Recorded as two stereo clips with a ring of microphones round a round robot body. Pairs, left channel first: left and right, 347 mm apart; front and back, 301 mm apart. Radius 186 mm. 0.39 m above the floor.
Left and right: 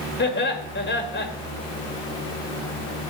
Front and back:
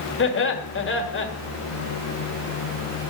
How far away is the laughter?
About 1.8 m.